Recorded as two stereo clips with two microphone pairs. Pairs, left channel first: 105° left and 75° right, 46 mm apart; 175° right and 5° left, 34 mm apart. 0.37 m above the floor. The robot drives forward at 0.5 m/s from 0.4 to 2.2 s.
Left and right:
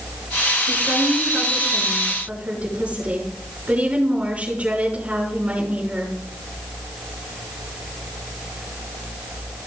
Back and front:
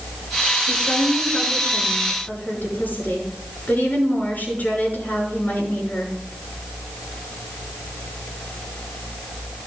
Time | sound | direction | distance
0.7 | a woman speaking | 135° right | 5 m